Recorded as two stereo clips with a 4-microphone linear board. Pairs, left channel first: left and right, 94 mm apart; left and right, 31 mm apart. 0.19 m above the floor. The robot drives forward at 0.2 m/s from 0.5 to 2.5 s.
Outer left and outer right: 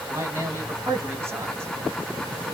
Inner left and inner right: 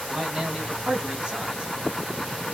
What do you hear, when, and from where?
0.1 s a man speaking: 25° right (ahead or behind), 1.4 m